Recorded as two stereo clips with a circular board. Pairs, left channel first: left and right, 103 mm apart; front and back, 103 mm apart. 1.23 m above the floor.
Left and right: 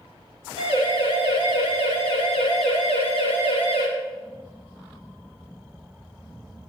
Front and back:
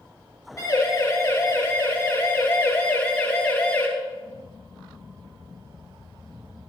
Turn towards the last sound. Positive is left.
turn(degrees=-70)